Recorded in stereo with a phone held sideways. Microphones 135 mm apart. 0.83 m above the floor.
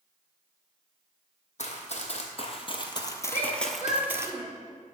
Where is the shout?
75° left (ahead or behind), 3 m.